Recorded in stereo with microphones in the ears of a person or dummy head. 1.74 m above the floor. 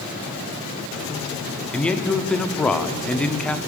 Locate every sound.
1.7 s a man speaking: 5° left (ahead or behind), 0.8 m